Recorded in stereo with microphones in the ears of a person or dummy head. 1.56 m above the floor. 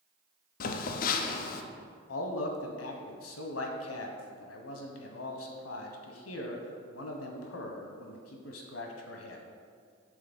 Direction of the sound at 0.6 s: 50° left (ahead or behind).